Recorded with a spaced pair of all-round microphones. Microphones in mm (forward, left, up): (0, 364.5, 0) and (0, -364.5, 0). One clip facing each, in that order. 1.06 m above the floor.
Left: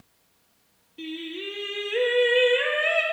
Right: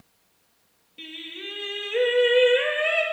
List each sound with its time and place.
1.0 s singing: 20° right (ahead or behind), 1.9 m